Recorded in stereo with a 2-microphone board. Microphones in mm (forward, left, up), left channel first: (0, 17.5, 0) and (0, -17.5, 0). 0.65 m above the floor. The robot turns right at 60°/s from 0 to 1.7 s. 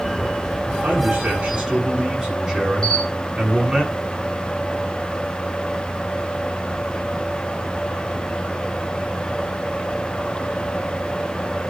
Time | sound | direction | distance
0.8 | a man speaking | 70° right | 7.5 m
2.8 | a camera shutter | 20° left (ahead or behind) | 4.5 m